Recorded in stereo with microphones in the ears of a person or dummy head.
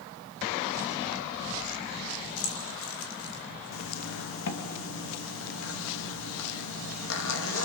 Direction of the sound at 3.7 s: 70° left (ahead or behind).